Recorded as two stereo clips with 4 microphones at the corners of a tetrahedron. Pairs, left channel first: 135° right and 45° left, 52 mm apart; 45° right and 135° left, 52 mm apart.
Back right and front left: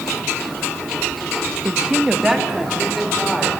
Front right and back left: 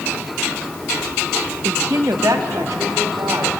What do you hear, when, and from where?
1.6 s a woman speaking: 115° left, 1.2 m; by 3.5 s 135° left, 4 m